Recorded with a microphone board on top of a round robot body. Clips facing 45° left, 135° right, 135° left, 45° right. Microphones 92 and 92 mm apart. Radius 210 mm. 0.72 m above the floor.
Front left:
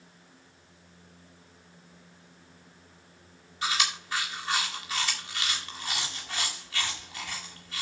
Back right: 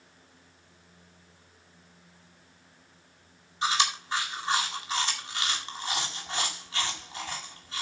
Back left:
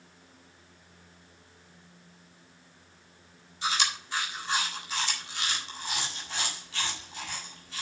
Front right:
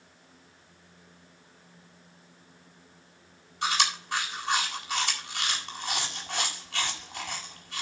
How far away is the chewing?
About 3.5 m.